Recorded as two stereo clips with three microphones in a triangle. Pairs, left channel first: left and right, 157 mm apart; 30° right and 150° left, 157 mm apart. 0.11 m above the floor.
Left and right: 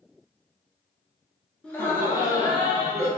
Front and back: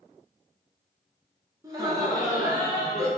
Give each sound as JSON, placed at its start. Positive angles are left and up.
{"t": 1.6, "sound": "laughter", "azimuth_deg": 155, "distance_m": 1.1}